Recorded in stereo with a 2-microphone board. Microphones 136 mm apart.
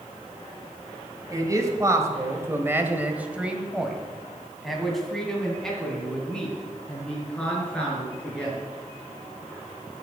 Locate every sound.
1.3 s a man speaking: 25° right (ahead or behind), 1.6 m; by 8.6 s 10° left (ahead or behind), 5 m